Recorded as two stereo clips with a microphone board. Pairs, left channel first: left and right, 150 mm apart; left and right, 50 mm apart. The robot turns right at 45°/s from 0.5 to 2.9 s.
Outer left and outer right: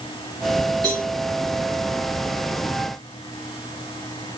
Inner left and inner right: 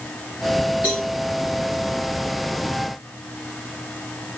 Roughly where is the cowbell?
Right.